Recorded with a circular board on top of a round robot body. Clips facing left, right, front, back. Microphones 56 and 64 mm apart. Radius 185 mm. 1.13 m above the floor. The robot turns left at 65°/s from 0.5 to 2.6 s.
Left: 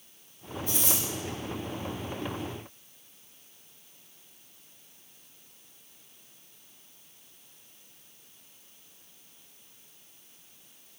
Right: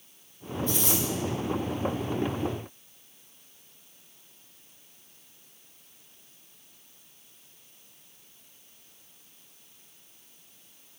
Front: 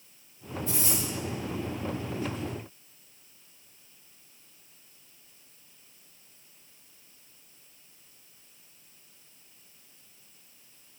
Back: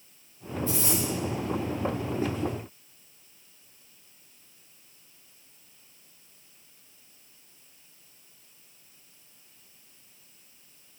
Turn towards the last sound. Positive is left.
turn(degrees=-80)